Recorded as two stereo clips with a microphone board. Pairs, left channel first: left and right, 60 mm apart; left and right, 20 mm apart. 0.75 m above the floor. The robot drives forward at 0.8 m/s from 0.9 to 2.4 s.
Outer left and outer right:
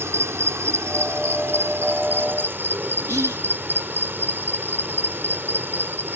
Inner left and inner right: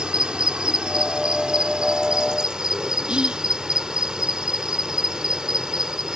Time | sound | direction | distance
0.0 | an insect | 50° right (ahead or behind) | ?
3.1 | whispering | 60° right (ahead or behind) | ?